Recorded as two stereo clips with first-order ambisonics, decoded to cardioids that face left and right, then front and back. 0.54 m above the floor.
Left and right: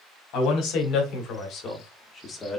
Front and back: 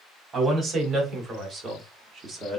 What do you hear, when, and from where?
0.3 s a man speaking: 115° left, 2 m; by 2.6 s 165° left, 1.1 m